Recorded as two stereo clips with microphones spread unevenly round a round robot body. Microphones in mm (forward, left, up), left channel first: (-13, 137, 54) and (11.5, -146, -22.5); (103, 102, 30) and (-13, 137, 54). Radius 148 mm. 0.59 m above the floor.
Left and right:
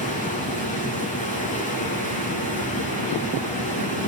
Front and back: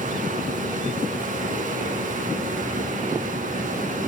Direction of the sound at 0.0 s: 160° left.